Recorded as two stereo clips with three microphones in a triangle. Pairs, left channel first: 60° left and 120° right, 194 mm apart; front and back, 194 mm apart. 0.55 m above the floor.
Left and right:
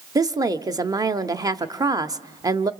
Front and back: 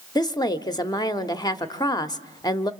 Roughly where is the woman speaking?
Ahead right.